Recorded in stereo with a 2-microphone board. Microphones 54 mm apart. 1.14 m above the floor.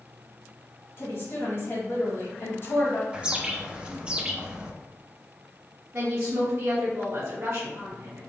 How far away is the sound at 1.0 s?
About 1.5 m.